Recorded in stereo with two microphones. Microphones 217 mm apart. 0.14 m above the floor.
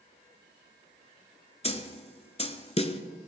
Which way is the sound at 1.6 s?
30° left (ahead or behind).